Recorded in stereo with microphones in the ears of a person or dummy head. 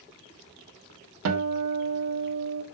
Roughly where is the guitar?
Right.